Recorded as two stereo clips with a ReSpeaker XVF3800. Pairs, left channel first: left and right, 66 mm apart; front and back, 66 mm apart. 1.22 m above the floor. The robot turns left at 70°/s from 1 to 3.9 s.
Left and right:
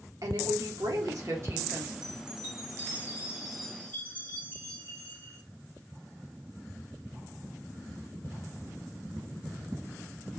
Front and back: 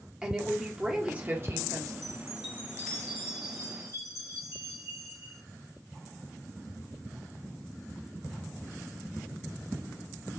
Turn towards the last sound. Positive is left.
turn(degrees=150)